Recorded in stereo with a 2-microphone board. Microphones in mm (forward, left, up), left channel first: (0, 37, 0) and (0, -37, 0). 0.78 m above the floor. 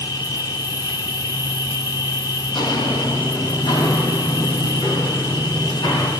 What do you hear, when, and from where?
0.0 s an insect: 80° left, 1.4 m
2.5 s footsteps: 85° left, 9.5 m; by 6.1 s 70° left (ahead or behind), 13.5 m